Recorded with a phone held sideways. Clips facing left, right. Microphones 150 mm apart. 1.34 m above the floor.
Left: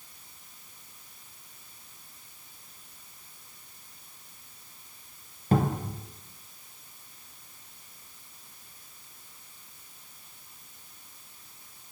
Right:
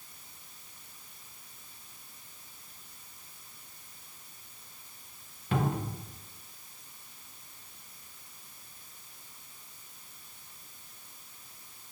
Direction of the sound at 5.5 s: 40° left (ahead or behind).